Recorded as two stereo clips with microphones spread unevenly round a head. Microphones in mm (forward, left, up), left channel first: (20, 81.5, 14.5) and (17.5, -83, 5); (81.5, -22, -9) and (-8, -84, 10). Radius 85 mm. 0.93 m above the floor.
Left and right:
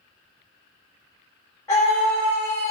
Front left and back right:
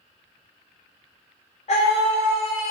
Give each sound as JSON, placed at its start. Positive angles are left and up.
{"t": 1.7, "sound": "a scream", "azimuth_deg": 20, "distance_m": 3.5}